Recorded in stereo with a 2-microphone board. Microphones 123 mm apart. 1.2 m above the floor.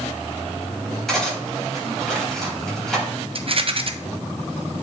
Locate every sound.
1.1 s cutlery clinking: 5° left (ahead or behind), 4 m
3.4 s a rattle: 50° right (ahead or behind), 0.7 m